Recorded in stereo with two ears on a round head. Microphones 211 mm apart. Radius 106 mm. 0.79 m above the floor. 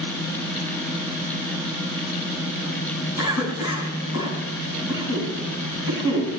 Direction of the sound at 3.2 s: 75° left (ahead or behind).